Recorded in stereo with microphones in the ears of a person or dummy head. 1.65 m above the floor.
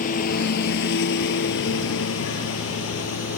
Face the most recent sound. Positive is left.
turn(degrees=75)  # may be behind; listen again after turning